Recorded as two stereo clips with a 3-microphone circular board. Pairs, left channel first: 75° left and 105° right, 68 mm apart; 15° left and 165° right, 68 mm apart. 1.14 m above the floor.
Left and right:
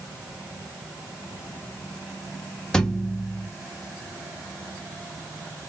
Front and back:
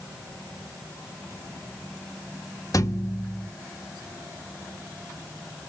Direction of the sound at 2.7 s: 5° right.